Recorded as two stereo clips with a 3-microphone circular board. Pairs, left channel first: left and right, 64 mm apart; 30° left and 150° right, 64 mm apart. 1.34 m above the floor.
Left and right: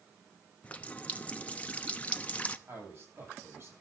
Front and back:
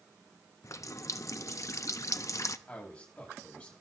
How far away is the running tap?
About 0.9 m.